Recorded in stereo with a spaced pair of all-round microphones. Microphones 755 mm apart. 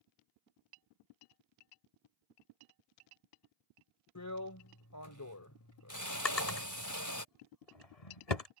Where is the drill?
25° left (ahead or behind).